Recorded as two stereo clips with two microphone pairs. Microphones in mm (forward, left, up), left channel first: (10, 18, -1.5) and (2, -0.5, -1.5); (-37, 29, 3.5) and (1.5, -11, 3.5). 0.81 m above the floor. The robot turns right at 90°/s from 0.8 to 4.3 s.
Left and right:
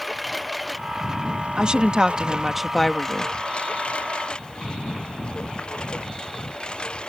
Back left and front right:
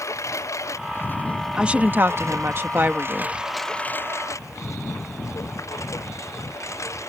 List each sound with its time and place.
0.0 s a lawn mower: 160° left; by 7.1 s 105° left
1.6 s a woman speaking: 120° right; by 3.4 s 40° left